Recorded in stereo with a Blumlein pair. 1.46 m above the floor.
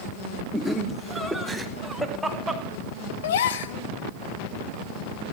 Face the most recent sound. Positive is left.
turn(degrees=60)